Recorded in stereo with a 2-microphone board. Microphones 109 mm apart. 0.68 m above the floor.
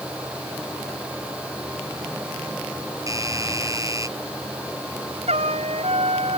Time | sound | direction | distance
3.1 | a doorbell | 30° right (ahead or behind) | ?
5.3 | a trumpet | 75° right (ahead or behind) | ?